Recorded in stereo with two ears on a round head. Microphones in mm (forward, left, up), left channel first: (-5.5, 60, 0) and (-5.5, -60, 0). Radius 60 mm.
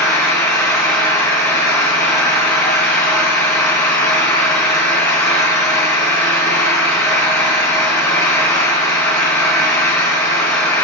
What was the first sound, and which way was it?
An engine running, 20° left (ahead or behind).